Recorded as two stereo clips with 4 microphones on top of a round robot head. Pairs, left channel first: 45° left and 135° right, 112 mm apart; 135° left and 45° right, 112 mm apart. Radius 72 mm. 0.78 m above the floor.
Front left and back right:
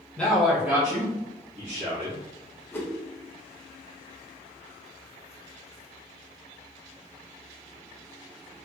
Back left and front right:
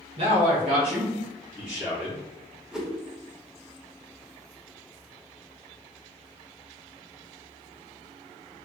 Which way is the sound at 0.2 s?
30° right.